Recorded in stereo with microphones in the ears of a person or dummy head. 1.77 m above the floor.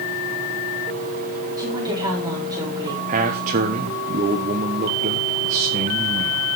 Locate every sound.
1.6 s a woman speaking: 25° right (ahead or behind), 4.5 m
3.1 s a man speaking: 40° right (ahead or behind), 1.3 m